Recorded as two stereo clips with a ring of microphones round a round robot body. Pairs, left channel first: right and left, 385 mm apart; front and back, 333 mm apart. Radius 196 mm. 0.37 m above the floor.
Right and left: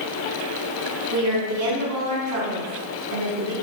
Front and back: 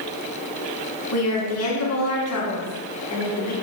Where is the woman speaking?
40° left, 4 m.